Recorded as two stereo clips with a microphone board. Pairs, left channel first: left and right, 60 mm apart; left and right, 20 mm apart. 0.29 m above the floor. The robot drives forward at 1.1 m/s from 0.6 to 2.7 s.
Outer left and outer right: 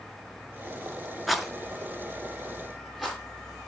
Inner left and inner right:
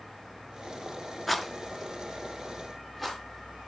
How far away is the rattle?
About 0.8 m.